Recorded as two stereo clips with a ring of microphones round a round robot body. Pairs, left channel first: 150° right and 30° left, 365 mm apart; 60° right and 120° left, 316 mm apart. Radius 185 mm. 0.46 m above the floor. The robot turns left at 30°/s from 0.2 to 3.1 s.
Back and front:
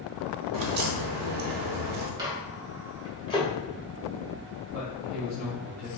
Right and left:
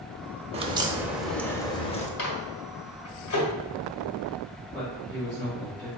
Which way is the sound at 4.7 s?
140° right.